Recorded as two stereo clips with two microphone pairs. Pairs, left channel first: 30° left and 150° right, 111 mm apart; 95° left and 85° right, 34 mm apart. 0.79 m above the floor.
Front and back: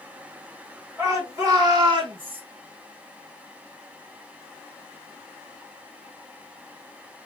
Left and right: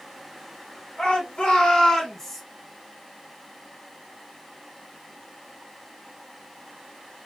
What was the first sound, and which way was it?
A shout, 150° left.